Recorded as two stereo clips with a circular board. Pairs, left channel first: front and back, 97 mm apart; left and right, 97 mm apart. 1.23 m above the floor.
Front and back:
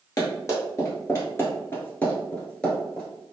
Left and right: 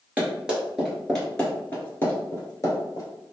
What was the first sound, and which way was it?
Running footsteps, 25° right.